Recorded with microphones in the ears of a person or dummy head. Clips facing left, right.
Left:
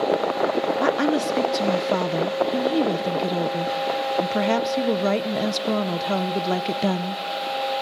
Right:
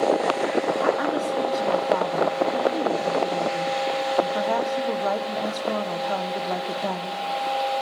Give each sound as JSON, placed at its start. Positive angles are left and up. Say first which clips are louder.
{"t": 0.8, "sound": "a woman speaking", "louder": "left 2 dB", "side_deg": 35, "distance_m": 0.9}